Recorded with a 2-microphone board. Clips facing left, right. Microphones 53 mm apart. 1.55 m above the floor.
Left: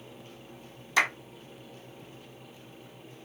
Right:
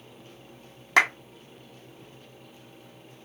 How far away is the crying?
I don't hear crying.